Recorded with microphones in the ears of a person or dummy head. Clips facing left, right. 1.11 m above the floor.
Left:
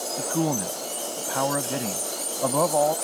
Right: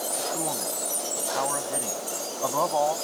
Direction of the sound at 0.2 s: 55° left (ahead or behind).